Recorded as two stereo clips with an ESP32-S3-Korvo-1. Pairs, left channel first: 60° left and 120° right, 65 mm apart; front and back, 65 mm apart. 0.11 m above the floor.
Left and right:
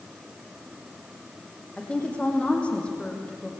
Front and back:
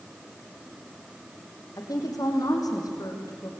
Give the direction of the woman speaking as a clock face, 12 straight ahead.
12 o'clock.